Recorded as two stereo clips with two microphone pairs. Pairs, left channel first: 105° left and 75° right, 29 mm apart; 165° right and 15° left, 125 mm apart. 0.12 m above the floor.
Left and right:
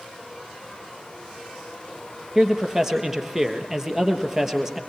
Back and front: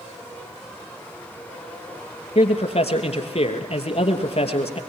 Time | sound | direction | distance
2.4 | a man speaking | 145° right | 2.5 m